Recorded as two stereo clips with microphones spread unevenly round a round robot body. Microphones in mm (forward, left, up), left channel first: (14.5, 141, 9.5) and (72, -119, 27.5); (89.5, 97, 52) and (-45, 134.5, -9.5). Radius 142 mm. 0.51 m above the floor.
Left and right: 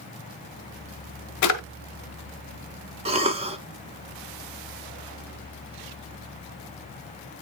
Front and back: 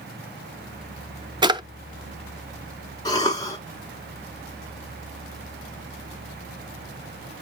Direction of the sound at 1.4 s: 120° left.